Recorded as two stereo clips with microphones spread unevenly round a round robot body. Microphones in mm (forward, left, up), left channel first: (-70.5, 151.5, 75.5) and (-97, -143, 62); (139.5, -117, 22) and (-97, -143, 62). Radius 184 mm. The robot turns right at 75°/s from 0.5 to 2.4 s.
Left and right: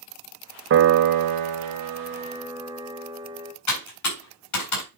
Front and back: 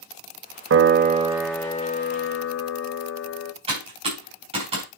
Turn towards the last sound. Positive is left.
turn(degrees=110)